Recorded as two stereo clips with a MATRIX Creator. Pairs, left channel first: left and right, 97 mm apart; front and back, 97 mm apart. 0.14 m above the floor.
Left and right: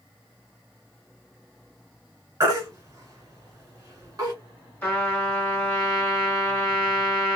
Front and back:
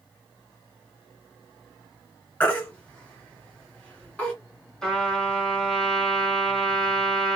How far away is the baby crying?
About 1.3 m.